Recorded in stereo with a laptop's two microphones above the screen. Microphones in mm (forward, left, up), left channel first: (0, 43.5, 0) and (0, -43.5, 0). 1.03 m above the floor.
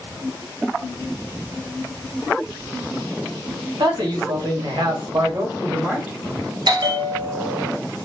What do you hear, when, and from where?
3.8 s a man speaking: 60° right (ahead or behind), 1.3 m; by 6.2 s 15° right (ahead or behind), 0.8 m
6.7 s a bell: 55° right (ahead or behind), 0.5 m